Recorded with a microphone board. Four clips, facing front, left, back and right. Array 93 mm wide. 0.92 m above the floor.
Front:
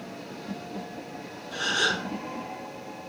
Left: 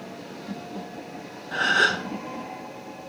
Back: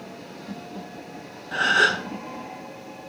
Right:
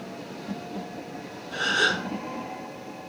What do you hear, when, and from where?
1.5 s a gasp: 145° left, 3 m